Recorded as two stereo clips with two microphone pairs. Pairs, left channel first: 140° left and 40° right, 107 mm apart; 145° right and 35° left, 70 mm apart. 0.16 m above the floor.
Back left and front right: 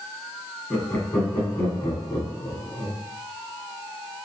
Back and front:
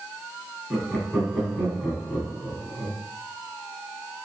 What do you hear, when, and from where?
0.7 s laughter: 100° left, 1.7 m